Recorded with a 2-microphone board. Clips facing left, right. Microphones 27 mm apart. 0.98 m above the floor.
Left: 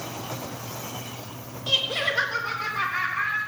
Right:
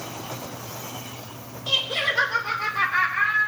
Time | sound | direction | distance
1.7 | laughter | 5° left (ahead or behind) | 2.5 m